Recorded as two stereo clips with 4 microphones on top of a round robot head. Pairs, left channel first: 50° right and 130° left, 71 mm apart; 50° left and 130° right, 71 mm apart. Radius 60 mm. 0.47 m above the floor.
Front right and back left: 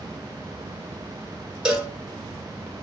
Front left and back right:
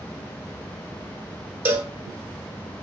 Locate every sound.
1.6 s a cowbell: 155° right, 1.2 m